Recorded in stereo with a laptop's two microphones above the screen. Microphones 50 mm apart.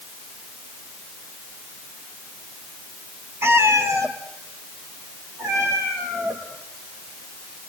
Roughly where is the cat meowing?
Right.